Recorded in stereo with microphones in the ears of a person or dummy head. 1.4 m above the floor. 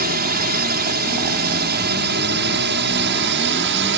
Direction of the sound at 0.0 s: 45° right (ahead or behind).